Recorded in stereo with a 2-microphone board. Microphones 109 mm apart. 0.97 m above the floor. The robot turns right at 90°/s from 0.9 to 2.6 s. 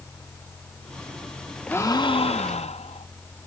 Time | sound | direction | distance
1.7 | a gasp | 20° left | 0.8 m